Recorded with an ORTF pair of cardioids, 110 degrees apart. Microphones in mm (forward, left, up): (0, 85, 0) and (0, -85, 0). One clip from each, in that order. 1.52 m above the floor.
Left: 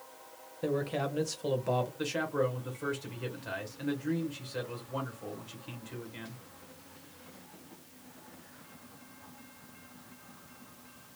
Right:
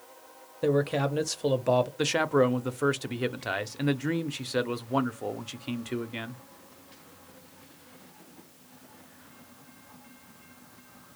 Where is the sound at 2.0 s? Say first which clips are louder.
Right 7 dB; 50° right, 0.6 m.